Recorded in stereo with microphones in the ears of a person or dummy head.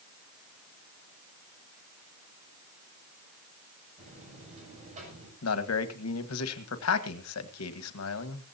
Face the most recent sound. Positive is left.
turn(degrees=85)